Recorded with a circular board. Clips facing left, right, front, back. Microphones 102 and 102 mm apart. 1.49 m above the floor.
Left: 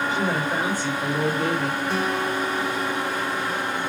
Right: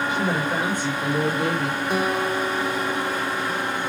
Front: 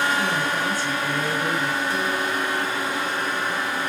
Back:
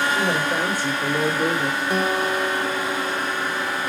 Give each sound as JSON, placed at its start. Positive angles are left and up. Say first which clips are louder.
{"t": 0.1, "sound": "a woman speaking", "louder": "even, back 2 dB", "azimuth_deg": -165, "distance_m": 3.0}
{"t": 1.9, "sound": "a guitar", "louder": "right 4 dB, back 3 dB", "azimuth_deg": -165, "distance_m": 0.6}